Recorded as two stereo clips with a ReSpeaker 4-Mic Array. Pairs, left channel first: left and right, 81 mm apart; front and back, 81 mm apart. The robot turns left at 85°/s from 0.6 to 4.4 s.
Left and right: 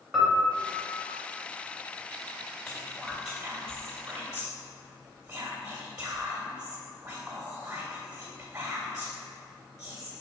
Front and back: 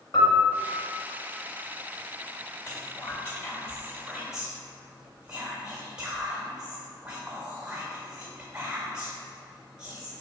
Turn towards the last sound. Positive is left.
turn(degrees=-105)